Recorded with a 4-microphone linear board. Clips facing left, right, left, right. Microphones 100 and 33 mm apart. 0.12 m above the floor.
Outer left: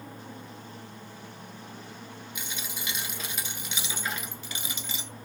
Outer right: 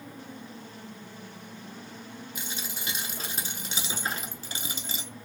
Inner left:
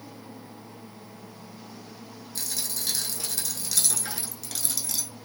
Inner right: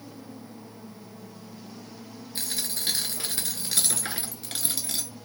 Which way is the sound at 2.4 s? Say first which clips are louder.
Even, inner right 2 dB; 35° right (ahead or behind).